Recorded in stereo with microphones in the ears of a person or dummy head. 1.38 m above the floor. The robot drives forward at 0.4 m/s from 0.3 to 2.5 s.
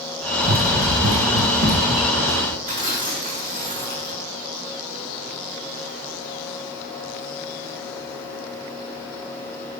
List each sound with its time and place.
0.4 s running footsteps: 50° right (ahead or behind), 2.5 m; by 2.6 s 45° right (ahead or behind), 4.5 m
2.7 s tearing paper: 45° right (ahead or behind), 3.5 m